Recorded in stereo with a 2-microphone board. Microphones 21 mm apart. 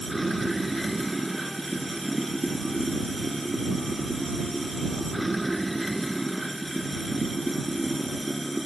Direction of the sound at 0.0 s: Centre (ahead or behind).